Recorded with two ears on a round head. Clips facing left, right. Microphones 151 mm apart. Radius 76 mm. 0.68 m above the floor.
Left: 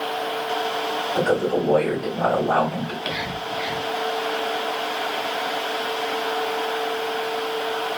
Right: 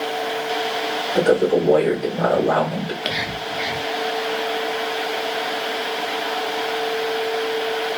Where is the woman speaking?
55° right (ahead or behind), 2.0 m.